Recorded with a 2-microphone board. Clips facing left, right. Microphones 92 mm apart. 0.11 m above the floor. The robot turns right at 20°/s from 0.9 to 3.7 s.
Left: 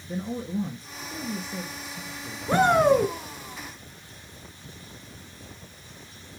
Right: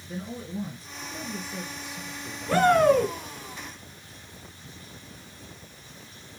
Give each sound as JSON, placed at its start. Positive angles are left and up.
{"t": 0.1, "sound": "a man speaking", "side_deg": 25, "distance_m": 1.9}
{"t": 2.5, "sound": "a shout", "side_deg": 20, "distance_m": 1.4}